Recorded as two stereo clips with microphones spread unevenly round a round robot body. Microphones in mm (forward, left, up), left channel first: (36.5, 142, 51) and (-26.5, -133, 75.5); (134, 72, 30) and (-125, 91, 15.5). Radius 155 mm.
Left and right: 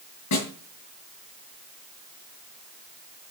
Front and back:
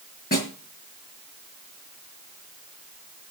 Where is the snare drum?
50° left, 6.5 m.